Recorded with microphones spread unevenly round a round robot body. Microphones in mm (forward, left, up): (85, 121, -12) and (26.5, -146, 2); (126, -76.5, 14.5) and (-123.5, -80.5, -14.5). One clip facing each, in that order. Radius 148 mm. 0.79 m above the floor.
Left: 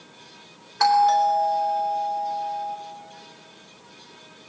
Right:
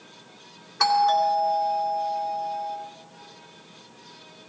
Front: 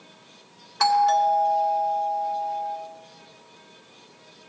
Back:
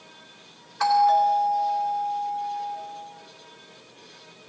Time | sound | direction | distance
0.8 | a doorbell | 30° right | 2.5 m